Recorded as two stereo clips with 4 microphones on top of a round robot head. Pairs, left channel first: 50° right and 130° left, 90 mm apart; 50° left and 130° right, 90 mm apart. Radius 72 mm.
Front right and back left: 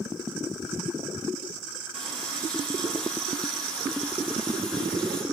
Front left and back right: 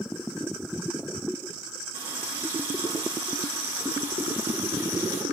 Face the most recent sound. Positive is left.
turn(degrees=-130)